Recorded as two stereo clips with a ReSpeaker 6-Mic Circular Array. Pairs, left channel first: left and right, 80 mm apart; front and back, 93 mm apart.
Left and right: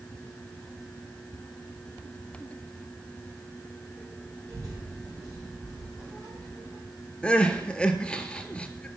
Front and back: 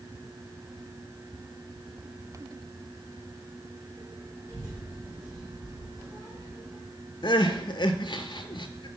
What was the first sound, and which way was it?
A child speaking, 125° right.